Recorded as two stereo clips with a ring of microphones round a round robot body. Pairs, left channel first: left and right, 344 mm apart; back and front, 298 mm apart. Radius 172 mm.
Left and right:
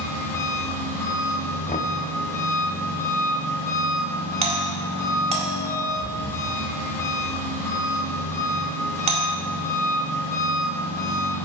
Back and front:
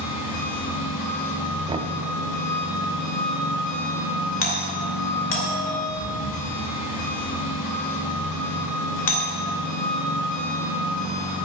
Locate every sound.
0.0 s an engine running: 175° left, 3 m
1.7 s knocking: 50° left, 0.6 m
4.4 s a doorbell: 155° right, 1.7 m